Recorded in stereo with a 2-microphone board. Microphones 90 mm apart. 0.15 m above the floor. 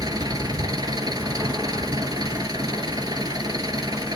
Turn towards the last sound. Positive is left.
turn(degrees=-45)  # may be behind; listen again after turning